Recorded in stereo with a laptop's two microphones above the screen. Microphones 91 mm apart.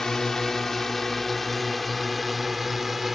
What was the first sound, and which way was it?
A drone, 5° left (ahead or behind).